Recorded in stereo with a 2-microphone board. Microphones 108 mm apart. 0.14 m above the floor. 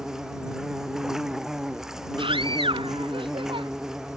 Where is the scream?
50° right (ahead or behind).